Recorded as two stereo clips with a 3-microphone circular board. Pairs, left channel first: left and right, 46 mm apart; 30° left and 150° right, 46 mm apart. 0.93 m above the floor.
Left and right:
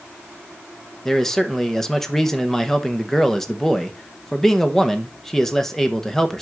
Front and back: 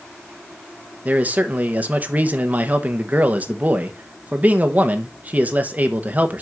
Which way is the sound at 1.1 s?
165° left.